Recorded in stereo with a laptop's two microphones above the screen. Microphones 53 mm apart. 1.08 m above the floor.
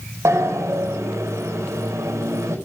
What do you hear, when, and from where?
0.2 s a sliding door: 80° right, 5 m